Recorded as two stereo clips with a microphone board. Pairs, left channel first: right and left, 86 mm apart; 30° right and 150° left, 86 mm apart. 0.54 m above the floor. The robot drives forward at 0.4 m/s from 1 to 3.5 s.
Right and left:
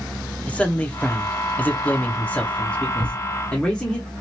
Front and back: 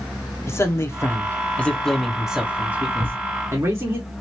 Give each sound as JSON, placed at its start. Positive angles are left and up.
{"t": 0.5, "sound": "a man speaking", "azimuth_deg": -30, "distance_m": 0.7}
{"t": 3.0, "sound": "a thud", "azimuth_deg": -160, "distance_m": 2.5}